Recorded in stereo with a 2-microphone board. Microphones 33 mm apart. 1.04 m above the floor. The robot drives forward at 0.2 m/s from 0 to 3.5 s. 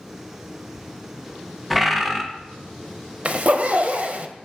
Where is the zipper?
45° right (ahead or behind), 0.5 m; by 4.3 s 50° right (ahead or behind), 0.5 m.